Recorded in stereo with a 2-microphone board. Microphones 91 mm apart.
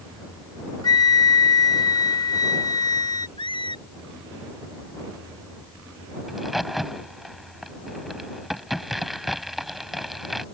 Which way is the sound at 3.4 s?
65° left (ahead or behind).